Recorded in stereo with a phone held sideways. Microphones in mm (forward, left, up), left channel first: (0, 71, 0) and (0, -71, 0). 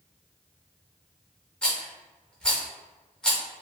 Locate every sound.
1.6 s a rattle: 5° left (ahead or behind), 0.7 m